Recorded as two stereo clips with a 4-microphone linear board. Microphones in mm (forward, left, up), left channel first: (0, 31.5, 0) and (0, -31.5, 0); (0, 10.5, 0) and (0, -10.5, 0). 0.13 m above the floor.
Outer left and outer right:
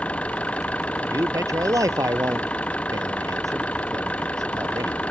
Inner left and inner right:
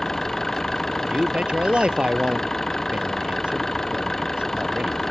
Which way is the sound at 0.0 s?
20° left (ahead or behind).